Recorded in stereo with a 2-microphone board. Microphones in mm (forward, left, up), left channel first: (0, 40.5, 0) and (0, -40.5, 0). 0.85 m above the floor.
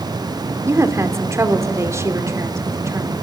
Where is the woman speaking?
35° right (ahead or behind), 2.5 m.